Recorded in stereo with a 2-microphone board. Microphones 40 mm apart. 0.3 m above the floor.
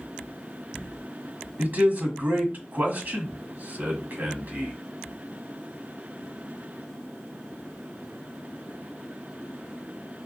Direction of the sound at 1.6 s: 50° right (ahead or behind).